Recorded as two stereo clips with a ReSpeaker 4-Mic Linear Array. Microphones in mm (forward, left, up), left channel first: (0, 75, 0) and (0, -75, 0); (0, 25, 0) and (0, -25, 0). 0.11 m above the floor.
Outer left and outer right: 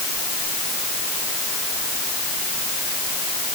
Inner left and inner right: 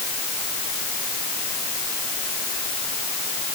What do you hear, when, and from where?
Only background noise.